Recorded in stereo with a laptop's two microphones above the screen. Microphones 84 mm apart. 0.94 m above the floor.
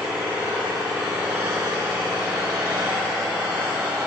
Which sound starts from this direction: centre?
An engine running, at 0.0 s.